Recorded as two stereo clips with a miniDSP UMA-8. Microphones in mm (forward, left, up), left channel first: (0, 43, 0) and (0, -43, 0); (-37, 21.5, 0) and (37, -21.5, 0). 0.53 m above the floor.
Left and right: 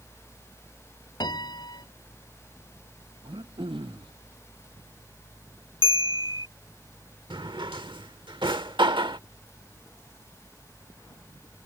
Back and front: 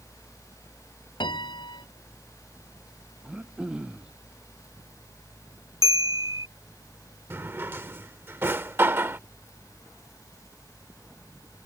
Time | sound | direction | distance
1.2 | a piano | 125° left | ?
3.2 | throat clearing | 110° right | ?
5.8 | a bell | 65° right | ?
7.3 | a drawer | 90° right | ?